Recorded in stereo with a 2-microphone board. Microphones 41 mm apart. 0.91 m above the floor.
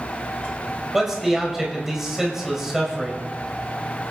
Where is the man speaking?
10° right (ahead or behind), 5 m.